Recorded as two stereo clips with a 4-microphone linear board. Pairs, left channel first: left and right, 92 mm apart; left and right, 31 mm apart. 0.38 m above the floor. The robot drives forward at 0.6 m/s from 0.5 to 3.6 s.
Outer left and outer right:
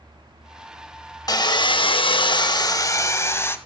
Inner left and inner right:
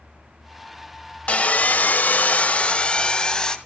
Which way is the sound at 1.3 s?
45° left (ahead or behind).